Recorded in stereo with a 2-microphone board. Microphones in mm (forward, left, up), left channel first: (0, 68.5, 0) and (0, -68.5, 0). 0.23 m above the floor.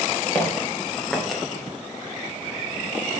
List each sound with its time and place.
0.3 s footsteps: 15° left (ahead or behind), 4 m; by 1.4 s centre (ahead or behind), 2.5 m